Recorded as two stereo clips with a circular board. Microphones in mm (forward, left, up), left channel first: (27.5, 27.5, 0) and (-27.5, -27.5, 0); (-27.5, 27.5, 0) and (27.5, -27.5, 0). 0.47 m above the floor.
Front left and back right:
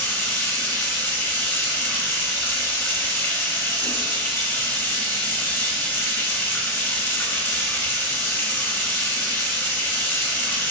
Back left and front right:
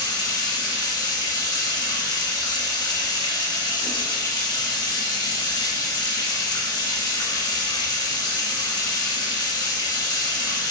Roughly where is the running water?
Left.